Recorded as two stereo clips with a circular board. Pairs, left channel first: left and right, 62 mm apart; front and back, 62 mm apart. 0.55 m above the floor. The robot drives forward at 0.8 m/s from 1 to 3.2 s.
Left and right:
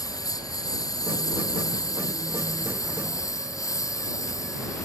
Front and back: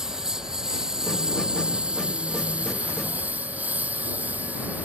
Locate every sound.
0.0 s a lawn mower: 100° left; by 4.8 s 115° left